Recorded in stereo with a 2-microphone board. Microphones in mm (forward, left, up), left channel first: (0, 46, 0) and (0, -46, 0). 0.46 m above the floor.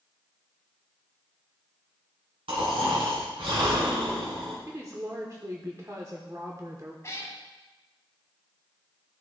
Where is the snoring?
75° right (ahead or behind), 2.5 m.